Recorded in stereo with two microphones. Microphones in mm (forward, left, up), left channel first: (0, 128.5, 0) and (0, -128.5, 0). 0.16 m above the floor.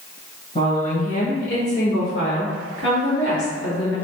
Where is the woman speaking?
25° left (ahead or behind), 1.6 m; by 4.0 s 60° left (ahead or behind), 2 m.